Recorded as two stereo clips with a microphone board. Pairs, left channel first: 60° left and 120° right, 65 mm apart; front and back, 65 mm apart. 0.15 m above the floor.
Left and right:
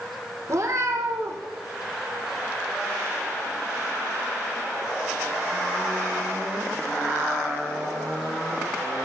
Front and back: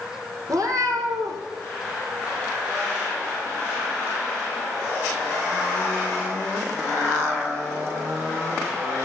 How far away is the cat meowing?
About 2.5 m.